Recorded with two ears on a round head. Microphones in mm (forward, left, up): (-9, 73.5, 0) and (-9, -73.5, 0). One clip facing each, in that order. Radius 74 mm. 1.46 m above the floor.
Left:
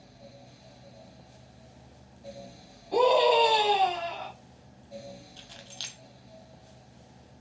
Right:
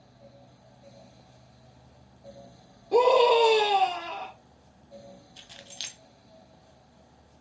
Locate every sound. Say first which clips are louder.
2.9 s a scream: right 2 dB; 60° right (ahead or behind), 1.9 m
5.4 s keys jangling: left 1 dB; 15° right (ahead or behind), 0.5 m